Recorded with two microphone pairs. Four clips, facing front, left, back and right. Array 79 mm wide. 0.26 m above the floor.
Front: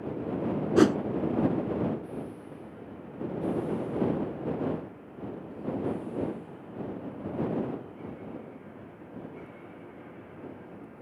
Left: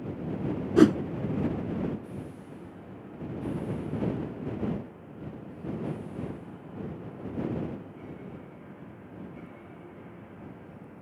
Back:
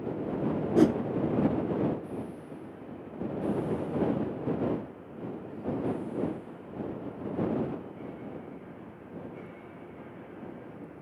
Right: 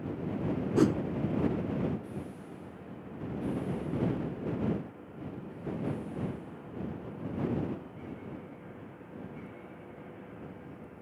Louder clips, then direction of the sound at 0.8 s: Left 7 dB, front 1 dB; 40° left.